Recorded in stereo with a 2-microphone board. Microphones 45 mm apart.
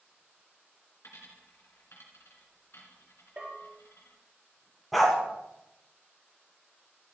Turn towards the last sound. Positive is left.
turn(degrees=0)  # may be behind; listen again after turning